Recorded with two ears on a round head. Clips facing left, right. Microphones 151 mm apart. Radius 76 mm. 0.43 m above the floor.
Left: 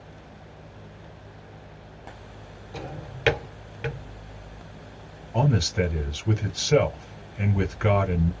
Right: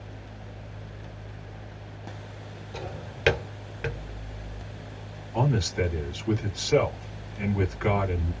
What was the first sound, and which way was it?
A drawer, centre (ahead or behind).